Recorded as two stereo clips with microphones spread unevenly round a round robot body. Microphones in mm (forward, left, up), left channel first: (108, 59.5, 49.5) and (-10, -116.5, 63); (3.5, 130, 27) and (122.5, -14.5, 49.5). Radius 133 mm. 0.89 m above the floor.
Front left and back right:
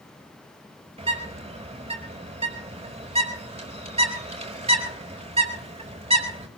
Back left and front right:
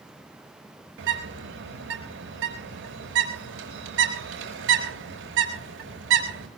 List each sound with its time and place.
1.0 s a bird: 60° right, 4.5 m